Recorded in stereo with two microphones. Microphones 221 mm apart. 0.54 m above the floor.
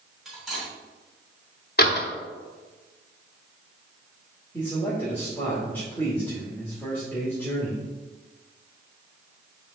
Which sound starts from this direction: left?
A door slam, at 1.8 s.